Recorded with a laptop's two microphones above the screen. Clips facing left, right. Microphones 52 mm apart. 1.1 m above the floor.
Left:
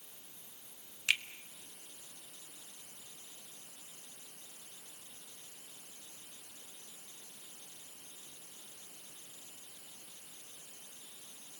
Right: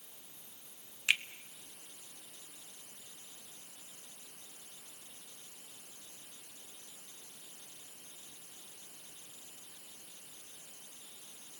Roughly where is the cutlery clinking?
I don't hear cutlery clinking.